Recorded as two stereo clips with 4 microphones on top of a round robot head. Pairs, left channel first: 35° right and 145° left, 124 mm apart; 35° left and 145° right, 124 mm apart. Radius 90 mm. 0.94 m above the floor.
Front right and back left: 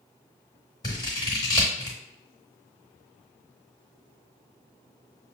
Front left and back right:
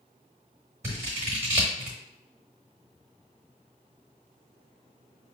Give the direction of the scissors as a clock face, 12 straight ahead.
3 o'clock.